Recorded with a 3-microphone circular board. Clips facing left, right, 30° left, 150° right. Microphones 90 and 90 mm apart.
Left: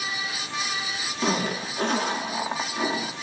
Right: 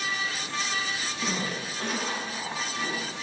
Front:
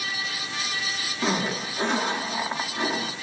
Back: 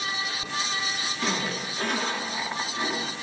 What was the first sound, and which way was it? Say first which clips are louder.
A zipper: left 7 dB, front 4 dB; 90° left.